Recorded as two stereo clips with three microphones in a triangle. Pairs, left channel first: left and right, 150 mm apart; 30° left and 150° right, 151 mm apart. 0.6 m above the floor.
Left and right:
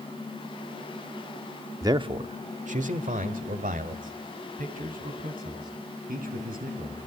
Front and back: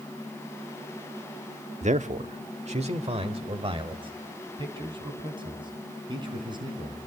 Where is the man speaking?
150° right, 0.9 m; by 7.0 s 90° right, 5.5 m.